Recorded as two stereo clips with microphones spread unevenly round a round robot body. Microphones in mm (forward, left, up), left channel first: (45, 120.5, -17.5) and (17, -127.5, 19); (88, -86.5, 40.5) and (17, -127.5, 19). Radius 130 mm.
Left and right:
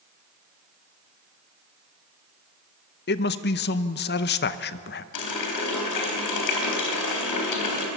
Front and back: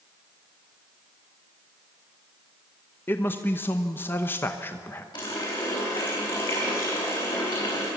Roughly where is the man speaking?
Left.